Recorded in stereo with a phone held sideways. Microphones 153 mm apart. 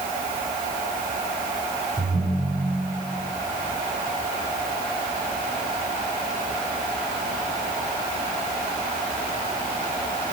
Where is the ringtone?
20° right (ahead or behind), 7 m.